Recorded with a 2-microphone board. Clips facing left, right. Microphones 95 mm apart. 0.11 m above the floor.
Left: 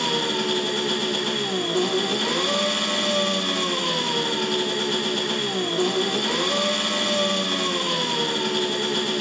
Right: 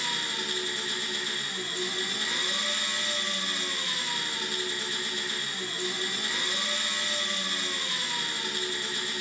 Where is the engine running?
70° left (ahead or behind), 1.1 m.